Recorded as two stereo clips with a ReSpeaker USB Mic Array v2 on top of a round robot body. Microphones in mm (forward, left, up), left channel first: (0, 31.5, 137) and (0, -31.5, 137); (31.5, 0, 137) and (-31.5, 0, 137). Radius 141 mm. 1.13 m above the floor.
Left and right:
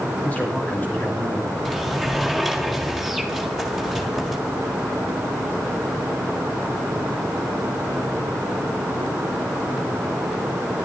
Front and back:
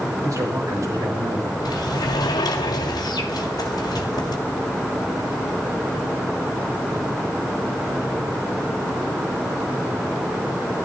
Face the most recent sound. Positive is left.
turn(degrees=0)